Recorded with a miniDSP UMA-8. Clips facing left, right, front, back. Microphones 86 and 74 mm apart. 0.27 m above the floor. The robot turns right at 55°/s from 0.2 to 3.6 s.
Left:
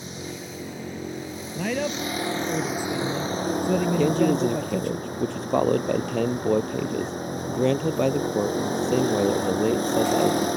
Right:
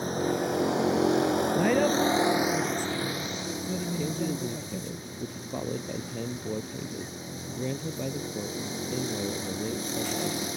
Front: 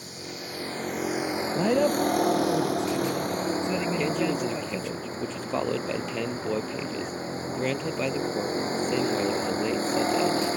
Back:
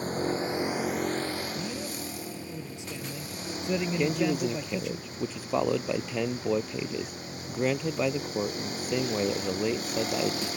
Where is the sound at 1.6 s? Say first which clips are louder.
Right 1 dB, front 13 dB; 20° right; by 5.0 s 95° left.